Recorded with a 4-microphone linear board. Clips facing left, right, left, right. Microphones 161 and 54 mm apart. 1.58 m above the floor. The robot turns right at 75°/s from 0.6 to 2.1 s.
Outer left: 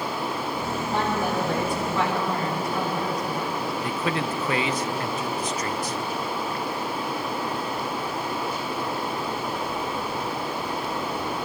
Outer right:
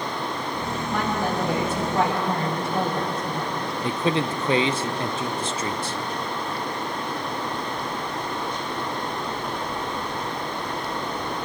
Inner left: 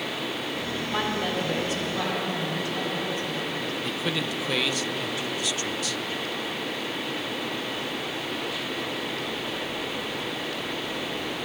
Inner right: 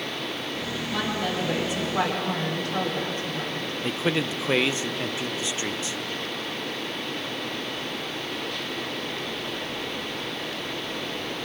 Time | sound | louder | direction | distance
0.9 | a woman speaking | even, even | 140° left | 4 m
3.8 | a man speaking | outer right 6 dB, inner right 7 dB | 30° right (ahead or behind) | 0.8 m